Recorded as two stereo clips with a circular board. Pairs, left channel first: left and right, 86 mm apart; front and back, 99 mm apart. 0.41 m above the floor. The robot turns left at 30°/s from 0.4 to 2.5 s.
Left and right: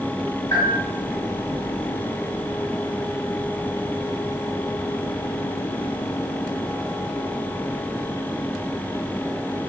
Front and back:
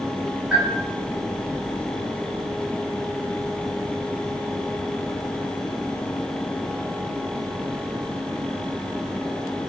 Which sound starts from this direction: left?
A bell, at 0.5 s.